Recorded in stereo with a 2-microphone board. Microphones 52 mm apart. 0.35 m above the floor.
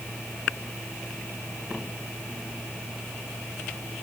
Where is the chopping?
No chopping in this recording.